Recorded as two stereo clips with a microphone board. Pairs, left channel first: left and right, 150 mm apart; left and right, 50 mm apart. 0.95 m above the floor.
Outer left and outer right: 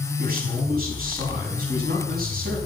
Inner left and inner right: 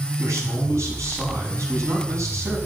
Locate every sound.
0.2 s a man speaking: 85° right, 6 m